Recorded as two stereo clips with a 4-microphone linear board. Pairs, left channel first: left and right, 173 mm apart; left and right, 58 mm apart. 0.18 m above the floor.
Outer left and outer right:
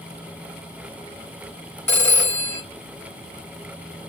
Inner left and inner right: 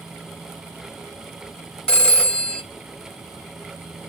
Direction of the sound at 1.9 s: 10° left (ahead or behind).